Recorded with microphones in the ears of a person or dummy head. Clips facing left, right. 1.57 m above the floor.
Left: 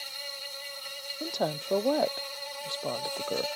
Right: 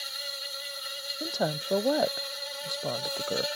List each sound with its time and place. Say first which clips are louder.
0.0 s an insect: right 1 dB; 15° right (ahead or behind)
1.2 s a woman speaking: right 1 dB; 5° right (ahead or behind)